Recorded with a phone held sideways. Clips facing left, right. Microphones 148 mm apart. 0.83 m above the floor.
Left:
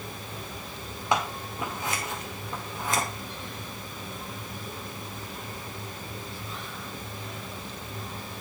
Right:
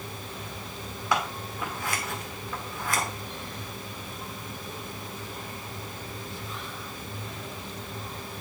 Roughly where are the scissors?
Left.